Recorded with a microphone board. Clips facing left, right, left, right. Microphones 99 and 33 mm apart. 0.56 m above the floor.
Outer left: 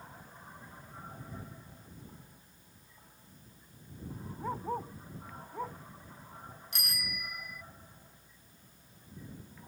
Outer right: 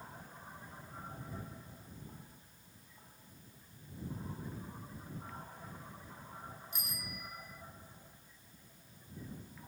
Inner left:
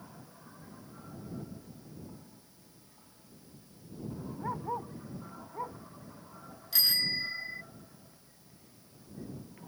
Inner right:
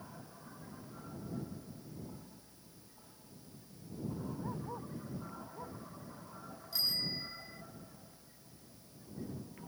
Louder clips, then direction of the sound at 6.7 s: Outer left 5 dB, inner left 7 dB; 80° left.